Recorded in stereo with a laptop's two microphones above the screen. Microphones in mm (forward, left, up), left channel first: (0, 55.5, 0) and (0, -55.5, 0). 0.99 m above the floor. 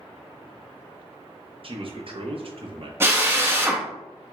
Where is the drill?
20° right (ahead or behind), 0.8 m.